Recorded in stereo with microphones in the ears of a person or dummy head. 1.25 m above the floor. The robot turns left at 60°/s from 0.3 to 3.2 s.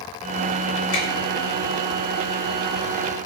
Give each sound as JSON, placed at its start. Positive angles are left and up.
{"t": 0.9, "sound": "a finger snap", "side_deg": 85, "distance_m": 1.8}